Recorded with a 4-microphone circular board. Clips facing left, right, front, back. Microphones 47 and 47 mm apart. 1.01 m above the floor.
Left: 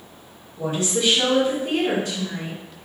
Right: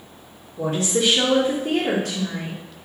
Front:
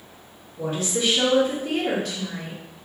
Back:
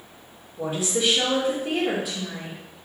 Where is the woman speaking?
100° right, 1.3 m.